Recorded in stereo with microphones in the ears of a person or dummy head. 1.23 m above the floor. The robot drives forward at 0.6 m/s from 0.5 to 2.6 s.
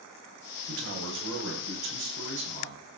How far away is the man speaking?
About 5.5 m.